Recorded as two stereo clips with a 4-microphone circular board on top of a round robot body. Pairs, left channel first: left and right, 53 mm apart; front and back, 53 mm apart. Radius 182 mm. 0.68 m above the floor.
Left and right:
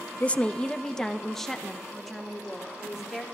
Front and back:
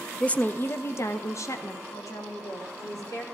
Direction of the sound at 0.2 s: 55° left.